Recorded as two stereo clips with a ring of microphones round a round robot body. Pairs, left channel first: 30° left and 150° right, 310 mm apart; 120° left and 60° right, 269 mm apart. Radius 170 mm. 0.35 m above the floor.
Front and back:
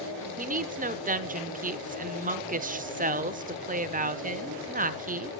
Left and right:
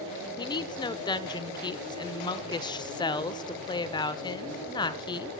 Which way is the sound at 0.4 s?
Straight behind.